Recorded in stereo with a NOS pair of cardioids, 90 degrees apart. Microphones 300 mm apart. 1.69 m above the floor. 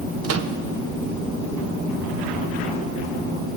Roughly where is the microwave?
Ahead right.